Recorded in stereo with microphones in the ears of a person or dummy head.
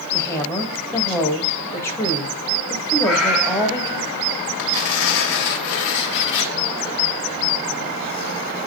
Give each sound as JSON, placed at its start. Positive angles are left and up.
{"t": 0.1, "sound": "a woman speaking", "side_deg": 10, "distance_m": 1.7}
{"t": 3.0, "sound": "a cat meowing", "side_deg": 0, "distance_m": 1.4}
{"t": 4.6, "sound": "tearing paper", "side_deg": 60, "distance_m": 1.4}